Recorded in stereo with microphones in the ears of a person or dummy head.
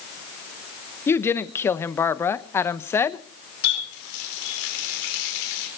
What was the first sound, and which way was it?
A woman speaking, 15° left (ahead or behind).